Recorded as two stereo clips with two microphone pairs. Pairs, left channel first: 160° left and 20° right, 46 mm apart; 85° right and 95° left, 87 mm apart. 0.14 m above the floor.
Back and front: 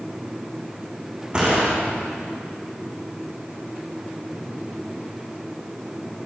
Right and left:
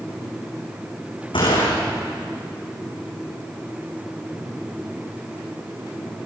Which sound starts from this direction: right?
A gunshot, at 1.3 s.